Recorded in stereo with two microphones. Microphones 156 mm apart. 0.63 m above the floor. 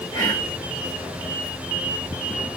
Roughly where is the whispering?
Left.